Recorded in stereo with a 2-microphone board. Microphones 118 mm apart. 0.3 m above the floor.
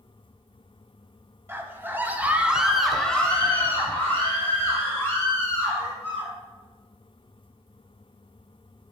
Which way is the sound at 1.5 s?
20° right (ahead or behind).